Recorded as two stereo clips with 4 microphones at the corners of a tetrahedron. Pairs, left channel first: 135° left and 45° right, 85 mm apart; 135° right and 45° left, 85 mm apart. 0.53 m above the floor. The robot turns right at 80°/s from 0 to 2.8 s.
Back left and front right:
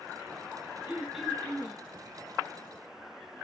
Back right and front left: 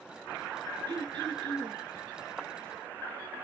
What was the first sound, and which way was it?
Throat clearing, 15° left.